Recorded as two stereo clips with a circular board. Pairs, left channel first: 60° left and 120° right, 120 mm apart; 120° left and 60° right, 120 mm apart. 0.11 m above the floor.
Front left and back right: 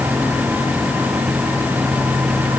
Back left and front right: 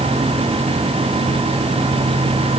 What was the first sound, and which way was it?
Only background noise.